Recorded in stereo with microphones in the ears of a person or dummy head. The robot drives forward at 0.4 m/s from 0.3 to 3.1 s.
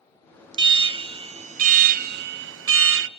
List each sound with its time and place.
0.5 s an alarm: 30° right (ahead or behind), 1.0 m; by 3.1 s 65° right (ahead or behind), 0.5 m